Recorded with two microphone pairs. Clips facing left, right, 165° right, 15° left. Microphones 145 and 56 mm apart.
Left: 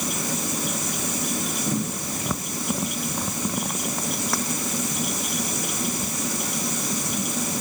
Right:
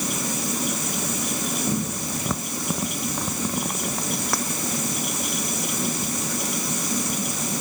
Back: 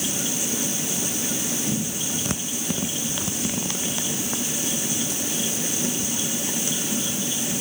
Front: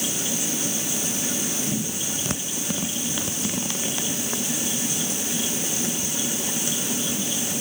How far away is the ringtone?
I don't hear a ringtone.